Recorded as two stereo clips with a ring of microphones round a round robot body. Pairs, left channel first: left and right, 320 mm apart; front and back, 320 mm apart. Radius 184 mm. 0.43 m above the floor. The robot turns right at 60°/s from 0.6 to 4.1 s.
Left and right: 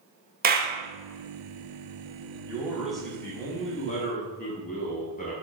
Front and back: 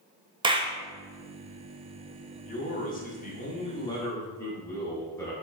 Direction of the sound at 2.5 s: 30° right.